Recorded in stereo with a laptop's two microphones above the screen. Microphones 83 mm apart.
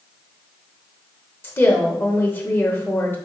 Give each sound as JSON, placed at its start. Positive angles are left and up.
{"t": 1.4, "sound": "a woman speaking", "side_deg": 25, "distance_m": 0.9}